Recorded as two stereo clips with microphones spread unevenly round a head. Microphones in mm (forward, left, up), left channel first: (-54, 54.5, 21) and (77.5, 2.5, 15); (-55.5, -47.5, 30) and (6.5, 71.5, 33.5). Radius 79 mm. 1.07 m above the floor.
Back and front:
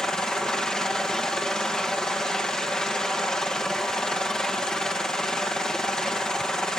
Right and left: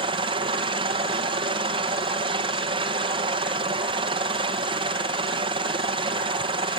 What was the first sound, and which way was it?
A helicopter, 75° left.